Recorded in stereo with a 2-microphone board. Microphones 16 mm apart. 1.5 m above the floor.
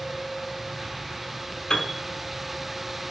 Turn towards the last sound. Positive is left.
turn(degrees=50)  # may be behind; listen again after turning